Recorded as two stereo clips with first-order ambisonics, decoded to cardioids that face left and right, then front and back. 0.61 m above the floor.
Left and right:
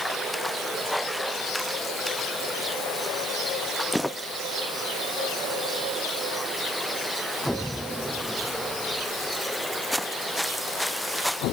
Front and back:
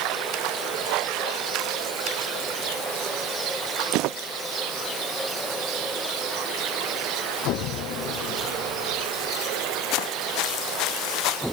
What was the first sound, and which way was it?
Only background noise.